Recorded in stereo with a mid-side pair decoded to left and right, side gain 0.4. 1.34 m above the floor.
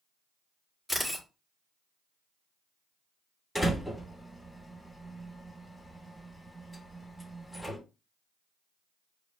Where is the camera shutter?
5° right, 2 m.